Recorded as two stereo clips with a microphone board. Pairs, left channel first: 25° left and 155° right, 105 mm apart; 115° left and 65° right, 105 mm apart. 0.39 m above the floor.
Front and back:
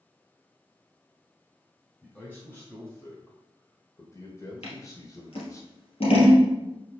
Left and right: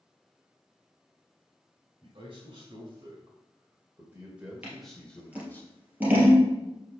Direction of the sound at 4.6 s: 5° left.